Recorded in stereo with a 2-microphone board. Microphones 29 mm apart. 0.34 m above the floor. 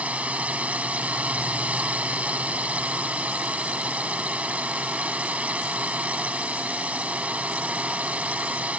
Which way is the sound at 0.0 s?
60° right (ahead or behind).